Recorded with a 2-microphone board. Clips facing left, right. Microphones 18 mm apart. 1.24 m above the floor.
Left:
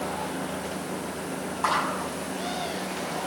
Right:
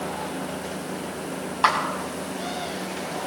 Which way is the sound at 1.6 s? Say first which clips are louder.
Right 5 dB; 75° right (ahead or behind).